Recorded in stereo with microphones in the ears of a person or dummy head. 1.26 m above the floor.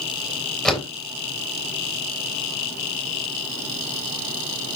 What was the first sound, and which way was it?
A door slam, 5° left (ahead or behind).